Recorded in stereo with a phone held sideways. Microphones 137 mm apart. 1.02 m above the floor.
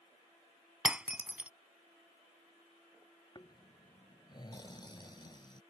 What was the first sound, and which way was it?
Breaking glass, 10° right (ahead or behind).